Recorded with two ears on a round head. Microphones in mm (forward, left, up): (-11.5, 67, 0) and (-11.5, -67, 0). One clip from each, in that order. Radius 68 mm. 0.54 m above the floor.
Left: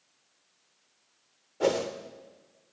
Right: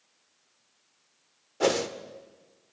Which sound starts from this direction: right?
A whoosh, at 1.6 s.